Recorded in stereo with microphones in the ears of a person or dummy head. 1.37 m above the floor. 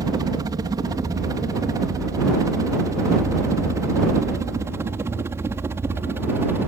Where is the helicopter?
25° right (ahead or behind); by 6.7 s 15° right (ahead or behind).